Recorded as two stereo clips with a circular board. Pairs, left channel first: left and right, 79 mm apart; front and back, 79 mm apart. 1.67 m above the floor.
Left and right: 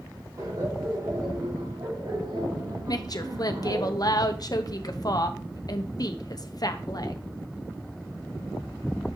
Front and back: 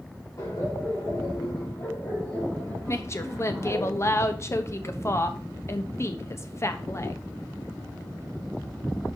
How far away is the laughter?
About 3.5 m.